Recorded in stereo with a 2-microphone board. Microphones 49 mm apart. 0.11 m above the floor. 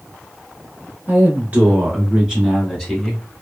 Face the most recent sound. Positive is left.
turn(degrees=10)  # may be behind; listen again after turning